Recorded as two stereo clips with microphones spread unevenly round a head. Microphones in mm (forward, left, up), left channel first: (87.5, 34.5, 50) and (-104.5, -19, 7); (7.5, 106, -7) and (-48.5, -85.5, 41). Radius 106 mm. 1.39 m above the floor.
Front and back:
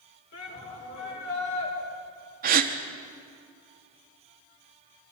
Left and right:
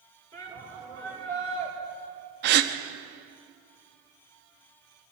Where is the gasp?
110° right, 1.2 m.